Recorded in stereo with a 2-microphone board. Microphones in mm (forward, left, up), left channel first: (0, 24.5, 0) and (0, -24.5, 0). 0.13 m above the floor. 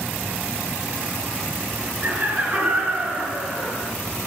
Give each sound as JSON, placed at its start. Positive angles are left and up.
{"t": 2.0, "sound": "laughter", "side_deg": -25, "distance_m": 2.0}